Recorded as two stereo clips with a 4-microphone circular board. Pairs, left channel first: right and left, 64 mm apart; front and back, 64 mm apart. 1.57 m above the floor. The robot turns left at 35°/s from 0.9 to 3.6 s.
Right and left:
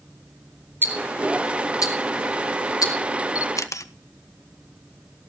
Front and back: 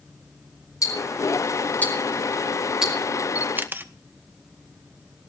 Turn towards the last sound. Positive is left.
turn(degrees=-120)